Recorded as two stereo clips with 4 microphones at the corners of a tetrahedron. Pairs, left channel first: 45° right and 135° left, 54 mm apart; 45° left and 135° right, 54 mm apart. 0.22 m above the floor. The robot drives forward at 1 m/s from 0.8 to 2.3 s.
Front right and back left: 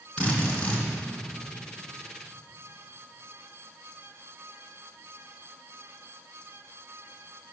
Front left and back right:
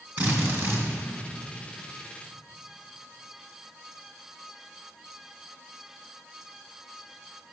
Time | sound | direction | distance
0.2 | a drill | 100° right | 2.5 m